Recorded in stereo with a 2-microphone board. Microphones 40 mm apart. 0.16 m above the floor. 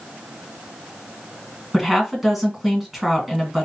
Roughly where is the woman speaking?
Centre.